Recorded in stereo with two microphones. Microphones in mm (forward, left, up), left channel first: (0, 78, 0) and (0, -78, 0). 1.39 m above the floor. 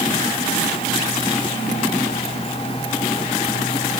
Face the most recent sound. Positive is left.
No sound to turn to.